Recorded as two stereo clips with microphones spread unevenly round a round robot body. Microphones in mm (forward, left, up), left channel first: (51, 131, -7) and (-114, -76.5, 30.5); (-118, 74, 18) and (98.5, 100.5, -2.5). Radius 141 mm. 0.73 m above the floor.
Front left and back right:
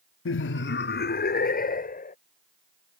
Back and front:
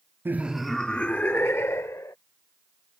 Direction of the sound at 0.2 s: 85° left.